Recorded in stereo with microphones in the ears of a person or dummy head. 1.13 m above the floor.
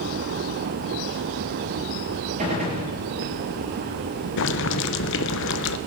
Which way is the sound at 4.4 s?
65° left (ahead or behind).